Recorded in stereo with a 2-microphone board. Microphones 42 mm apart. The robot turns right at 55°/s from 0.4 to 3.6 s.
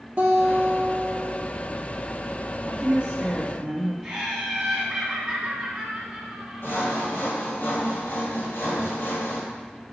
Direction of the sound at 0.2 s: 130° right.